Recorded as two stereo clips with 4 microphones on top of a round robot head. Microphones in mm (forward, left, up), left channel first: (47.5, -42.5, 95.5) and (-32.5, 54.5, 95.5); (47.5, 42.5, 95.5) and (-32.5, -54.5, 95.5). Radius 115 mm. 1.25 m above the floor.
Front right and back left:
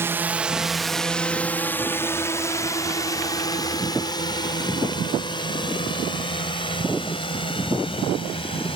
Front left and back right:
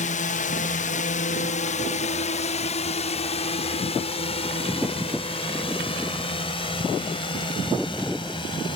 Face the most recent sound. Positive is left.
turn(degrees=0)